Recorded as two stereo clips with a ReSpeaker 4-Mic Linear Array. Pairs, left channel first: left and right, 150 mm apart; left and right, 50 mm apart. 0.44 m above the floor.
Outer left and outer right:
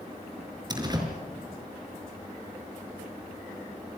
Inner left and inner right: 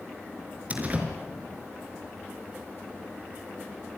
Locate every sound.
0.7 s a door slam: 25° right (ahead or behind), 5 m